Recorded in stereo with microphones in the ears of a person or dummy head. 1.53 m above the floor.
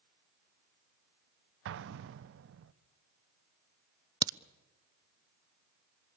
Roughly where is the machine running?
No machine running in this recording.